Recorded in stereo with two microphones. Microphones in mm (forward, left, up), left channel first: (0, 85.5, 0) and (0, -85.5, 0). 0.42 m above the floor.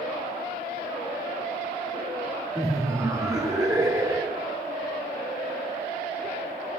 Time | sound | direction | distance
2.5 | laughter | 20° right (ahead or behind) | 0.7 m